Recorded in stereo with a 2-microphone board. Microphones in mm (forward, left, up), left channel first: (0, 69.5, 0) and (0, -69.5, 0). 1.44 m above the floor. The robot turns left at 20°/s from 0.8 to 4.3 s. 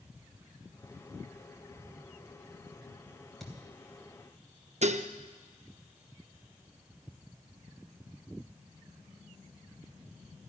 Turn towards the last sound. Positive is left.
turn(degrees=-55)  # may be behind; listen again after turning